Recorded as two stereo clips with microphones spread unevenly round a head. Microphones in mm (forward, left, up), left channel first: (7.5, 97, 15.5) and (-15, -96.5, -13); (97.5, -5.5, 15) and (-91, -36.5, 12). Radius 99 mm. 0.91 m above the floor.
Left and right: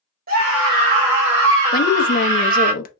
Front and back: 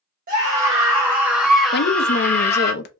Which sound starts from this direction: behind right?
A scream, at 0.3 s.